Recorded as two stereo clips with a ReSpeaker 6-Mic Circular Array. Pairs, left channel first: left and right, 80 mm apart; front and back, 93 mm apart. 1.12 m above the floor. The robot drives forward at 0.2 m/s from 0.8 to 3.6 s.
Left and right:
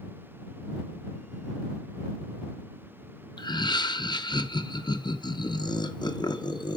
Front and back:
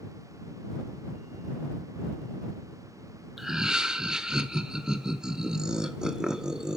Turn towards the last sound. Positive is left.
turn(degrees=95)